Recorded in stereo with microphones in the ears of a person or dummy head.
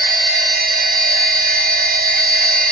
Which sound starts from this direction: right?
A machine running, at 0.0 s.